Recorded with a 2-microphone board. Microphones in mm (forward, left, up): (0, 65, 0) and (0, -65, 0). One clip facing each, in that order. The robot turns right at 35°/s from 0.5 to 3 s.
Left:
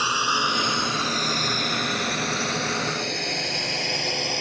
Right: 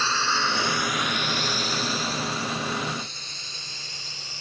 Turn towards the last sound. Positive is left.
turn(degrees=70)  # may be behind; listen again after turning